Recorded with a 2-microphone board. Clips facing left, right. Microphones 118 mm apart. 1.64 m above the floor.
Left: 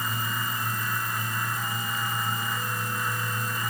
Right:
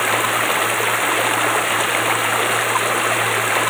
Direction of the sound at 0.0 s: 90° right.